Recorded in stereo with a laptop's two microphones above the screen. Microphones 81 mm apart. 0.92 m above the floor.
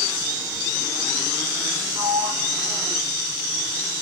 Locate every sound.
1.9 s a sliding door: 80° right, 2 m